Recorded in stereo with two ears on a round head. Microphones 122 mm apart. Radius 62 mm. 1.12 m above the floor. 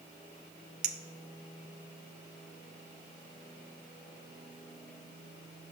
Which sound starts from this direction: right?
A clink, at 0.8 s.